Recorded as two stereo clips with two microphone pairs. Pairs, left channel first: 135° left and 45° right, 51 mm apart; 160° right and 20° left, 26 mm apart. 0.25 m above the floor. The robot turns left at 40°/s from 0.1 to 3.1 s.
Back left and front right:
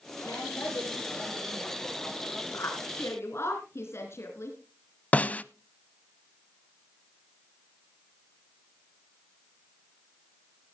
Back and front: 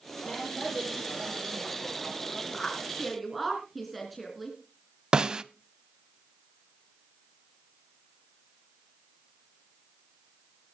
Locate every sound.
0.2 s a woman speaking: 130° left, 9 m; by 2.2 s 50° left, 9 m
2.5 s a woman speaking: 135° left, 3 m; by 4.6 s 110° left, 3 m
5.1 s a snare drum: 80° left, 0.5 m